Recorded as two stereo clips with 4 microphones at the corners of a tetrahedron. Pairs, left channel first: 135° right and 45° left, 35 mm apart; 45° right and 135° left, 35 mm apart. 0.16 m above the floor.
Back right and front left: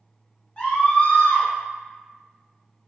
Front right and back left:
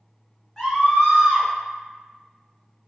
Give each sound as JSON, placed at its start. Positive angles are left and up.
{"t": 0.6, "sound": "a scream", "azimuth_deg": -110, "distance_m": 1.4}